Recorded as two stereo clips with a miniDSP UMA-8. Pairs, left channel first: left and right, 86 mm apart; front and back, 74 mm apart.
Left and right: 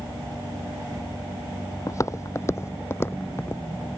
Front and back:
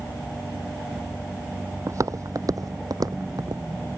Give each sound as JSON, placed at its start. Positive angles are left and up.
{"t": 1.9, "sound": "footsteps", "azimuth_deg": 135}